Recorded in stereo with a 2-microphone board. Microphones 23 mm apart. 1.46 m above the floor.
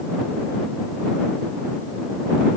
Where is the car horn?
No car horn in this recording.